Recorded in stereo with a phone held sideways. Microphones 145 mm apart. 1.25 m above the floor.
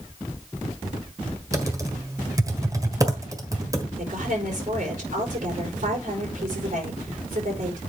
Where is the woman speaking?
60° right (ahead or behind), 4 m.